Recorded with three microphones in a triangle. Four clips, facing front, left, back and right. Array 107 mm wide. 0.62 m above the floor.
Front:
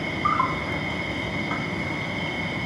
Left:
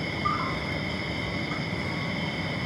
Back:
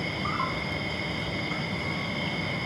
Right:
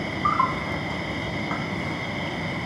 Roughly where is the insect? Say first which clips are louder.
Right 6 dB, front 7 dB; ahead right.